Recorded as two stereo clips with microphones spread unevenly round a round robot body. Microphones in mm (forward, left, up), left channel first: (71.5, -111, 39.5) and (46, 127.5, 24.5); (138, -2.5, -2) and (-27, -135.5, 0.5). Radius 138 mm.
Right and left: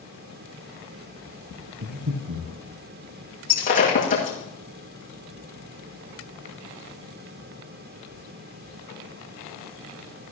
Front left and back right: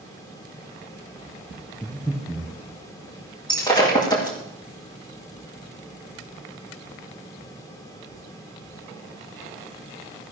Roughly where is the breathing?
Behind left.